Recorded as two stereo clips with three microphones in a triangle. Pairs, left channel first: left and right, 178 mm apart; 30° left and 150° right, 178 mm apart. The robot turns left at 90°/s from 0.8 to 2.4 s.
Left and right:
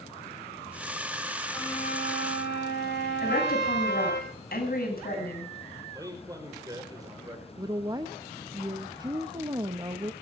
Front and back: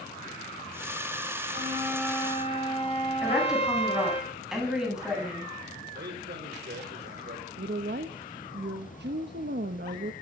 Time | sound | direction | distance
1.5 | a flute | 165° left | 3 m
3.2 | a woman speaking | 125° left | 9 m
5.9 | a man speaking | 160° right | 5 m
7.6 | a woman speaking | 160° right | 1.0 m